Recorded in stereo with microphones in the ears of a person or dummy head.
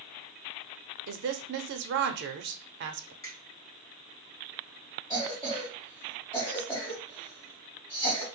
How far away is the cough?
About 1.5 m.